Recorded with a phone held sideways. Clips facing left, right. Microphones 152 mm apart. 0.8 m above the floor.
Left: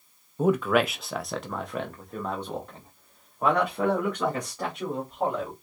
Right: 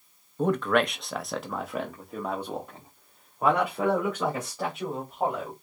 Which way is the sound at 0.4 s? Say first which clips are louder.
Left 2 dB; 5° left (ahead or behind).